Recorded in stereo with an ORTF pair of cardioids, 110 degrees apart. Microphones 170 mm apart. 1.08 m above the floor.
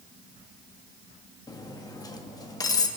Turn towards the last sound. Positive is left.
turn(degrees=20)